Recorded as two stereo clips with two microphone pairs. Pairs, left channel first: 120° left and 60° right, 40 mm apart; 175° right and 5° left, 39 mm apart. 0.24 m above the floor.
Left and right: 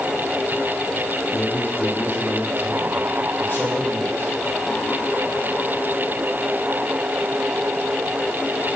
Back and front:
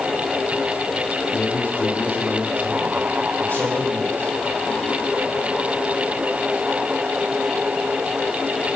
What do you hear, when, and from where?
1.3 s a man speaking: 155° left, 7 m